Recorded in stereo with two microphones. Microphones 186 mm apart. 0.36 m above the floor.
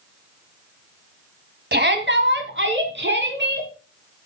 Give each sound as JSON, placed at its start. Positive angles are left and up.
{"t": 1.7, "sound": "a shout", "side_deg": -60, "distance_m": 2.0}